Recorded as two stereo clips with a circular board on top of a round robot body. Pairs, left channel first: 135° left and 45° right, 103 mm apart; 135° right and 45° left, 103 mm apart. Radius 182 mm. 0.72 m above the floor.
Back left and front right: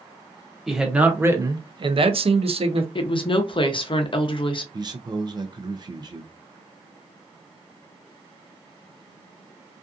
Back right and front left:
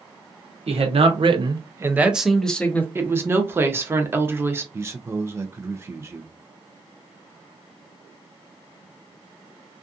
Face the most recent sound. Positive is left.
turn(degrees=-10)